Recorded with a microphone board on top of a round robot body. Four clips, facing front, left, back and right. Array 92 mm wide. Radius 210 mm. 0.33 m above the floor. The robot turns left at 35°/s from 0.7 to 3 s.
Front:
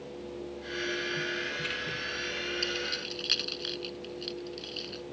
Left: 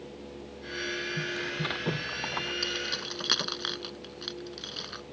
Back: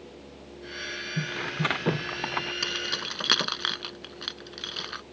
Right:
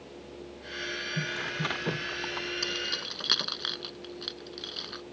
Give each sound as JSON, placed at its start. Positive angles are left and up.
{"t": 1.2, "sound": "tearing paper", "azimuth_deg": -155}
{"t": 2.6, "sound": "keys jangling", "azimuth_deg": -175}